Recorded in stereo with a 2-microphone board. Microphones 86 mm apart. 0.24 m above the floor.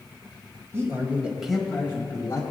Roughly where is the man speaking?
Right.